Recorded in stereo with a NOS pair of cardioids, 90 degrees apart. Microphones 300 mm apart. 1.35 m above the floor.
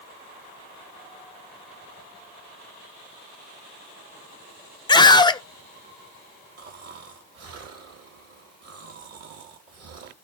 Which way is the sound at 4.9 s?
15° left.